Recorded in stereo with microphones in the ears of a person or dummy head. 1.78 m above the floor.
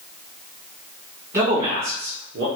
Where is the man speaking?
20° right (ahead or behind), 0.8 m; by 2.5 s 55° right (ahead or behind), 0.8 m.